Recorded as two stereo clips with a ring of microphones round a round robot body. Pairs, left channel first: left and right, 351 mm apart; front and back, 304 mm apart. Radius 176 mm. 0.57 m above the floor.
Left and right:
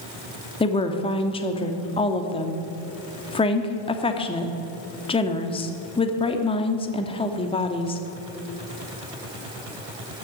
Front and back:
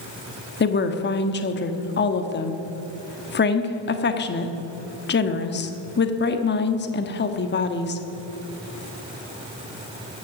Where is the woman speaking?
25° left, 1.1 m.